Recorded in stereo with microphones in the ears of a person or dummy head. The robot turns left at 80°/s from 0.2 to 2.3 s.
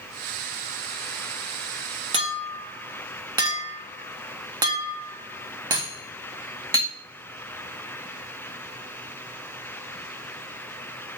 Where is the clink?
35° right (ahead or behind), 1.1 m; by 6.9 s 20° right (ahead or behind), 1.1 m.